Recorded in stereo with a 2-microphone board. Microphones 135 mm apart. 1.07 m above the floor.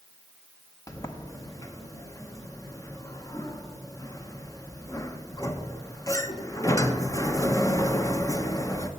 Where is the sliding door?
25° left (ahead or behind), 0.7 m.